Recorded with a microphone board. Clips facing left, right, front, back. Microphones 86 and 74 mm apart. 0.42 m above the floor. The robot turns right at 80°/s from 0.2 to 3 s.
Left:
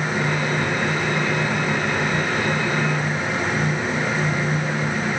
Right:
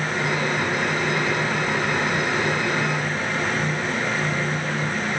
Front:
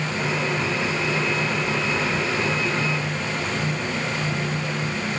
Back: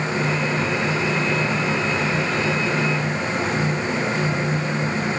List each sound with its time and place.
Only background noise.